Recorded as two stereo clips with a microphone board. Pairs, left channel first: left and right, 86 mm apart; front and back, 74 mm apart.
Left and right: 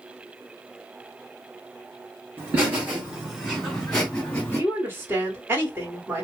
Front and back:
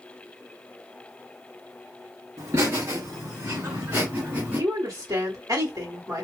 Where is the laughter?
150° right, 2 m; by 4.6 s 140° left, 1.7 m.